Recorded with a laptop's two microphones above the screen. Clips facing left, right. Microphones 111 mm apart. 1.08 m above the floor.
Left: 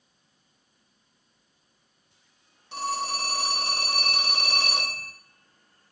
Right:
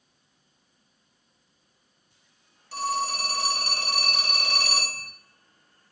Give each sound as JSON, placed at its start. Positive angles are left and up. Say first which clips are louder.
{"t": 2.7, "sound": "a phone ringing", "louder": "right 2 dB", "side_deg": 25, "distance_m": 0.6}